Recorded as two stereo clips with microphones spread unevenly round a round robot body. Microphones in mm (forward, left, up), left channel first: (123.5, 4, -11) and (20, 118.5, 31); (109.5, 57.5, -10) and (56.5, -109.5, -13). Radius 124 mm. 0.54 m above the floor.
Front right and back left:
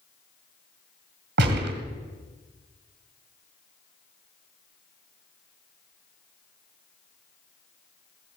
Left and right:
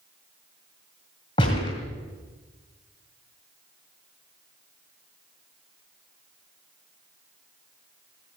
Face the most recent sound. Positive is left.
turn(degrees=145)